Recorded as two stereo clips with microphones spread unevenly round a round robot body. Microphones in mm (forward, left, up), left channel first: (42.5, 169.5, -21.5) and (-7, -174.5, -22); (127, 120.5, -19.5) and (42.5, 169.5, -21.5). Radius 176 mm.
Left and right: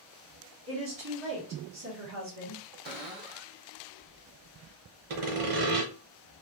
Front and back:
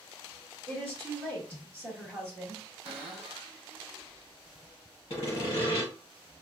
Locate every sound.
0.7 s a woman speaking: 100° right, 1.2 m
2.9 s a cupboard door: 165° right, 0.8 m
5.1 s sawing: 70° right, 0.9 m